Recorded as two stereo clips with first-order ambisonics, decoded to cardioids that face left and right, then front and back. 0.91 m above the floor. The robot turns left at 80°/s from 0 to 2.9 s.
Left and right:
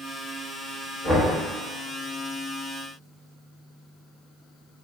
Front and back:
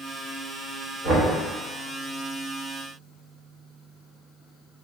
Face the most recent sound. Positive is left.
turn(degrees=65)